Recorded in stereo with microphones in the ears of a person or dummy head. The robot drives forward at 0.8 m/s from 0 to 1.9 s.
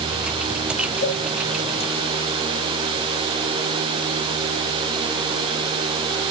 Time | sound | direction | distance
1.0 | a cowbell | 65° left (ahead or behind) | 3 m